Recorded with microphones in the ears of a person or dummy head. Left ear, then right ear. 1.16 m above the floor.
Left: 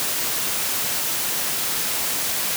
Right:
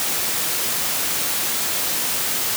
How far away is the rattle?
No rattle in this recording.